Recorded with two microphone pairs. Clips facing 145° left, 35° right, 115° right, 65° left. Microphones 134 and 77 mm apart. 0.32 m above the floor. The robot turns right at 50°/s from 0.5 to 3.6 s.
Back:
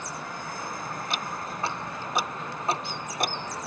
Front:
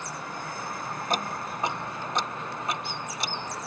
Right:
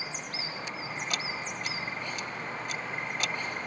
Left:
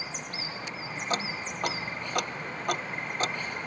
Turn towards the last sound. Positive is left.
turn(degrees=135)